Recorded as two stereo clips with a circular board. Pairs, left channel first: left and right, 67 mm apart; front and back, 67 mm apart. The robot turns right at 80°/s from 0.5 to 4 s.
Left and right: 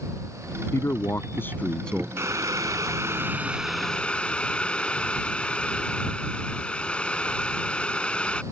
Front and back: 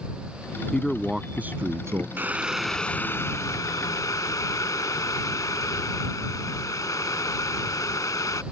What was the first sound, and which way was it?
A man speaking, 70° left.